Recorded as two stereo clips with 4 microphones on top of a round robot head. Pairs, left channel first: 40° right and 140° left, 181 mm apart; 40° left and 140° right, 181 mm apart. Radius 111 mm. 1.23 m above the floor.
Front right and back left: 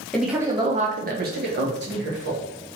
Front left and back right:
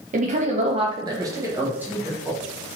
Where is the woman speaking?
125° right, 0.6 m; by 2.4 s 135° left, 1.4 m.